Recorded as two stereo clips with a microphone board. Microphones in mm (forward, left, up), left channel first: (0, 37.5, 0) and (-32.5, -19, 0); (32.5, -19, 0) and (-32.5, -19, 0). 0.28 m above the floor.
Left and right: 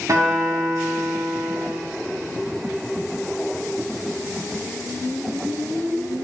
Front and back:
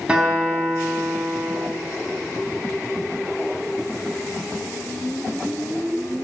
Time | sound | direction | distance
0.1 | a guitar | 115° right | 2.5 m